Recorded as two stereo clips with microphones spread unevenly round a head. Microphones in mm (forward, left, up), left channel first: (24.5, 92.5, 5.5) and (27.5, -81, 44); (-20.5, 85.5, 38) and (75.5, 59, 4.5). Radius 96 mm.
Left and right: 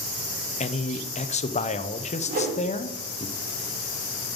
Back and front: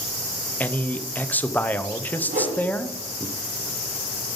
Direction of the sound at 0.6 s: 80° left.